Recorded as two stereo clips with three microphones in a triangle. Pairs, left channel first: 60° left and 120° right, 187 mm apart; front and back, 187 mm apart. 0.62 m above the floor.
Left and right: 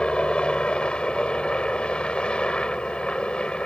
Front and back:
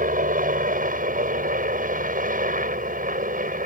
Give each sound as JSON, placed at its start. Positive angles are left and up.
{"t": 0.0, "sound": "a helicopter", "azimuth_deg": 145}